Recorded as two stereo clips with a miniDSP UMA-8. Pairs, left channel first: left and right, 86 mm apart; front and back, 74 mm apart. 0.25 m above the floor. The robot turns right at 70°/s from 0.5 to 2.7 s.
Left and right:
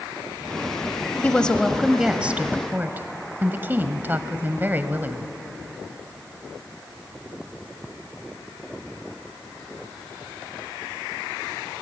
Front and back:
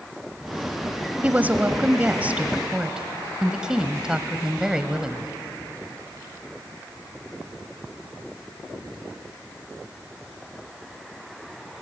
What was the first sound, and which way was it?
A woman speaking, 140° left.